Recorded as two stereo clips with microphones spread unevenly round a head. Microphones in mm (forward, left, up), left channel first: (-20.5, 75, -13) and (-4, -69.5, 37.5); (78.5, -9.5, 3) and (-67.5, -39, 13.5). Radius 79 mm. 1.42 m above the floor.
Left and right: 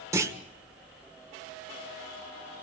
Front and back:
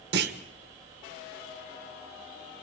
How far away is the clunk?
About 1.5 m.